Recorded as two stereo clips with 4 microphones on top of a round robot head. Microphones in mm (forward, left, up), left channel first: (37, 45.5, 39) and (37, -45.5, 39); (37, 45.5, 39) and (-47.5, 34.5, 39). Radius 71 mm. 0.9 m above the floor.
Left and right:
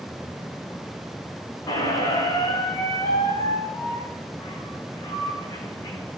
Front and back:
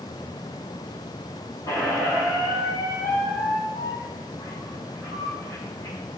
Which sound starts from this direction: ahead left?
A squeak, at 1.7 s.